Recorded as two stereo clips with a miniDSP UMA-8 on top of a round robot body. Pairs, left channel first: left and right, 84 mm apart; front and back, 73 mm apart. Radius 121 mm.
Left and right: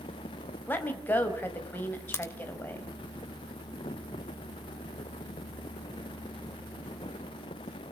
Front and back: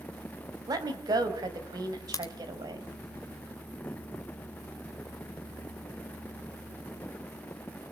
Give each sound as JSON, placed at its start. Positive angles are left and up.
{"t": 0.7, "sound": "a woman speaking", "azimuth_deg": 155, "distance_m": 4.0}
{"t": 2.1, "sound": "a crack", "azimuth_deg": 35, "distance_m": 2.5}